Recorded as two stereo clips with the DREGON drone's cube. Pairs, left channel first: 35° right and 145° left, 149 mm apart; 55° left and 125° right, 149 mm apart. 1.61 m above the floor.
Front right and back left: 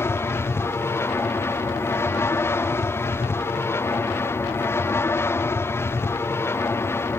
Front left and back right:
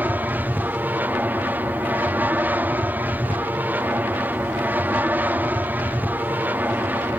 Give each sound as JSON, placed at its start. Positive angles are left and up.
{"t": 0.0, "sound": "an aircraft", "azimuth_deg": -70}